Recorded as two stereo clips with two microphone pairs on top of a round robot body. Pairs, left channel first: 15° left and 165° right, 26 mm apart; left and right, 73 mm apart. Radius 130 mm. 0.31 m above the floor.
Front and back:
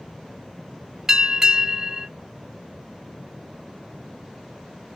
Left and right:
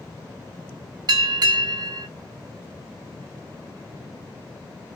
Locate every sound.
1.1 s a bell: 100° right, 1.1 m